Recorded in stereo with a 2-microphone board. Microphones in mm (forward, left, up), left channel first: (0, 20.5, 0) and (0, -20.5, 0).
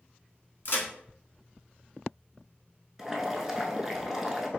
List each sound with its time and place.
0.7 s a crack: 60° left (ahead or behind), 1.0 m
3.0 s boiling: 10° right (ahead or behind), 0.6 m